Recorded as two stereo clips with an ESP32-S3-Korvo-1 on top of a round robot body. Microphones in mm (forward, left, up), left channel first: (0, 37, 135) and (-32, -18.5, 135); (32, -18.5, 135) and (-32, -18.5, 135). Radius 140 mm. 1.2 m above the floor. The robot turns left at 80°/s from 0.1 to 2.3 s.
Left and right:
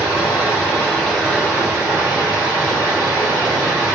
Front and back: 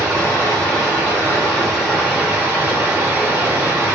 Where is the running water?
55° left, 1.4 m; by 4.0 s 120° right, 1.4 m.